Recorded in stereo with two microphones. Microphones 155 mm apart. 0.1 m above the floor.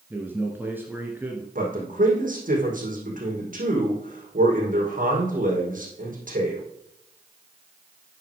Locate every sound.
0.1 s a man speaking: 15° right (ahead or behind), 1.6 m
1.6 s a man speaking: 60° right (ahead or behind), 4.5 m